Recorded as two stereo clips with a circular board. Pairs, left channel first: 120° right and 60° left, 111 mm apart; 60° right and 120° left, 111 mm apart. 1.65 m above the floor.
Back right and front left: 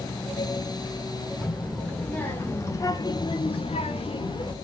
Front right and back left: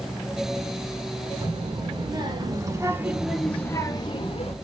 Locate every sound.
1.4 s a child speaking: 160° left, 2.5 m; by 4.5 s 80° right, 1.4 m